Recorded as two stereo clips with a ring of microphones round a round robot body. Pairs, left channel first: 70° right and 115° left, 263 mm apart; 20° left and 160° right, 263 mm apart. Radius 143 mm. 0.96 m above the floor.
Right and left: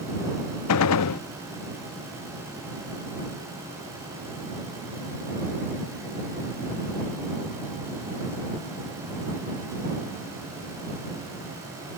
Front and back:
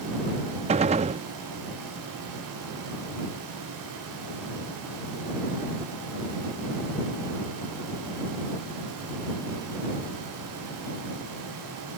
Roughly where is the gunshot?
Right.